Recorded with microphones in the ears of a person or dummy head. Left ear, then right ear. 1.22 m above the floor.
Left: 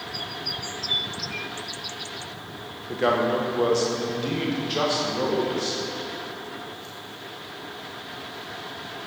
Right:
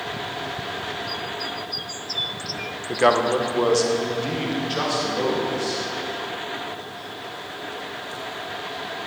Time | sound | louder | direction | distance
2.9 | a man speaking | right 4 dB | 45° right (ahead or behind) | 1.0 m